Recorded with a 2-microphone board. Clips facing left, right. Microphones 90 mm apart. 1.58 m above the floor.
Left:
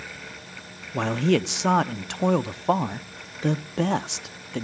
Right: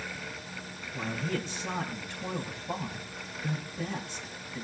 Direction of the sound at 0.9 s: 75° left (ahead or behind).